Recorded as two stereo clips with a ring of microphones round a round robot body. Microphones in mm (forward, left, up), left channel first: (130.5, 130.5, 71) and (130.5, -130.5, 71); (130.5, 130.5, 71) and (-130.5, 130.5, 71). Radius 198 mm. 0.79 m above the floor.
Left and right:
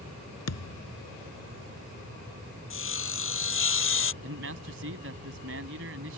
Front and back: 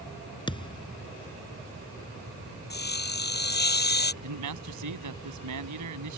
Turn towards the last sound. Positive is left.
turn(degrees=-150)